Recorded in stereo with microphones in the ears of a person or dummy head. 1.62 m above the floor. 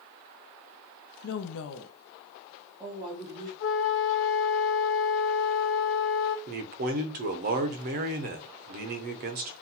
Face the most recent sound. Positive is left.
turn(degrees=-40)  # may be behind; listen again after turning